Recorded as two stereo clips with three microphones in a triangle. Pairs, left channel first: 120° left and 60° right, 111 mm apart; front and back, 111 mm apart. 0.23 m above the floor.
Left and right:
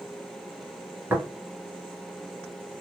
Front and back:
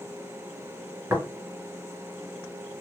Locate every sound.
1.1 s tapping: 120° right, 1.5 m